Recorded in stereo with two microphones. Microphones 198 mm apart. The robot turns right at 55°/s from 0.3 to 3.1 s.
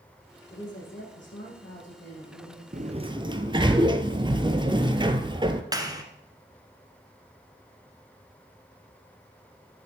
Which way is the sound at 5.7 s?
20° right (ahead or behind).